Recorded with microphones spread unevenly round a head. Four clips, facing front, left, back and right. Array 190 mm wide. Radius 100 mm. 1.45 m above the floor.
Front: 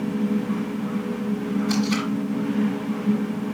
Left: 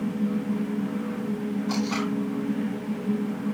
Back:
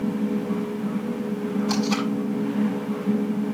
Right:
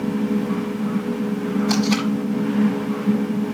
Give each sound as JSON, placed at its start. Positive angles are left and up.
{"t": 1.7, "sound": "tape being pulled", "azimuth_deg": -105, "distance_m": 4.0}